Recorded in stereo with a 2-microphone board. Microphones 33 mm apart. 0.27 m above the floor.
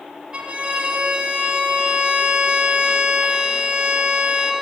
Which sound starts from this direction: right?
A violin, at 0.3 s.